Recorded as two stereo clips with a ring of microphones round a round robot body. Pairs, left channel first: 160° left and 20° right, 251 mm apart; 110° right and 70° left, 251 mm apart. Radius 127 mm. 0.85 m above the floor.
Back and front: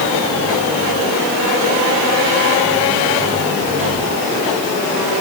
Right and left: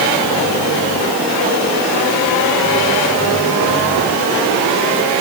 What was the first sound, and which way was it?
Only background noise.